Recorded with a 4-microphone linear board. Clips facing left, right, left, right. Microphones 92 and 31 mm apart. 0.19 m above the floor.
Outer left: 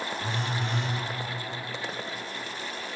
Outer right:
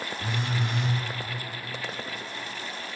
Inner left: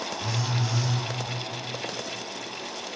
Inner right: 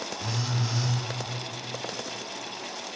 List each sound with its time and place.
0.2 s a phone buzzing: 15° right (ahead or behind), 0.7 m